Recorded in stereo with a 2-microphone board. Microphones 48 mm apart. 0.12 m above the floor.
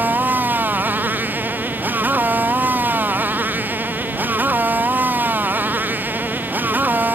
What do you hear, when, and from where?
0.0 s a motorcycle: 40° right (ahead or behind)